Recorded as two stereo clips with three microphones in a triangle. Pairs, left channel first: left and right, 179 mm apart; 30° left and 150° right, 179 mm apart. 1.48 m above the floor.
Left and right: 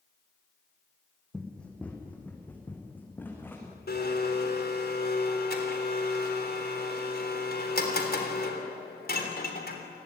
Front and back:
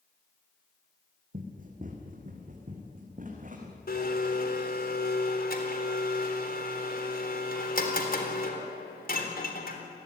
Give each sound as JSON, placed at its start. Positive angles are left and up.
{"t": 1.3, "sound": "running footsteps", "azimuth_deg": 175, "distance_m": 4.0}
{"t": 3.9, "sound": "a blender", "azimuth_deg": 65, "distance_m": 3.5}